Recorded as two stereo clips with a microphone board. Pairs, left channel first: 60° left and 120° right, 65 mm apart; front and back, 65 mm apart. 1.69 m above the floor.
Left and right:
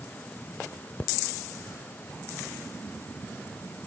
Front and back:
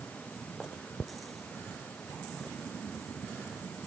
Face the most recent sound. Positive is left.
No sound to turn to.